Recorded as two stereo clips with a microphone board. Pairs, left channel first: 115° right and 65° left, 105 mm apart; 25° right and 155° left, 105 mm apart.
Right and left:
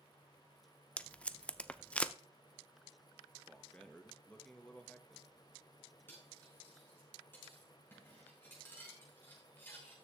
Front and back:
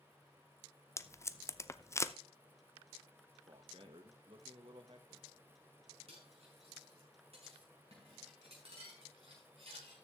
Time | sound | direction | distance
1.0 | tape being pulled | 50° right | 0.5 m
3.5 | a man speaking | 170° left | 1.5 m
6.1 | cutlery clinking | 175° left | 5.5 m